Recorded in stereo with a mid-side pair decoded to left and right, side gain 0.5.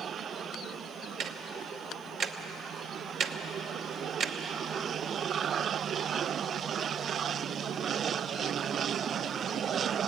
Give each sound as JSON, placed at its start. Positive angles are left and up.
{"t": 1.2, "sound": "ticking", "azimuth_deg": -65, "distance_m": 1.0}